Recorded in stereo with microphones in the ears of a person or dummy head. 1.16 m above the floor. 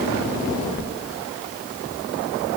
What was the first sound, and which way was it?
Only background noise.